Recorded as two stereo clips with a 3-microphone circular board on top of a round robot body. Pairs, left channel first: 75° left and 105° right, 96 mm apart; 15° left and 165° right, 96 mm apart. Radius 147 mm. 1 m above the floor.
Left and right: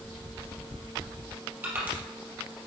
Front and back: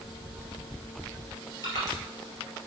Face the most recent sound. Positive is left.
turn(degrees=-30)